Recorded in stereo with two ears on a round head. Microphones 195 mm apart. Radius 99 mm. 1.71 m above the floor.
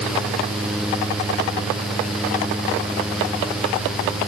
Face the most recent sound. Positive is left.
No sound to turn to.